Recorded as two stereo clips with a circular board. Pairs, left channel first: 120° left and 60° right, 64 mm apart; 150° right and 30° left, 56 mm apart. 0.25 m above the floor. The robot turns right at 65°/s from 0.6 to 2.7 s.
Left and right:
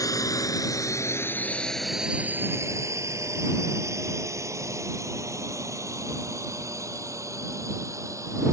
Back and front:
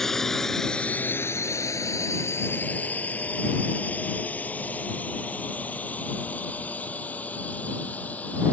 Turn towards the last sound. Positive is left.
turn(degrees=-90)